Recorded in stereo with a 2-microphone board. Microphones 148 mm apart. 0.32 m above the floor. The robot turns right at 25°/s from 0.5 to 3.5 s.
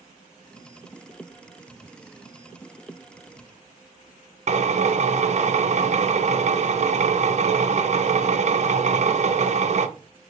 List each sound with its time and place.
4.5 s a drill: 50° right (ahead or behind), 0.5 m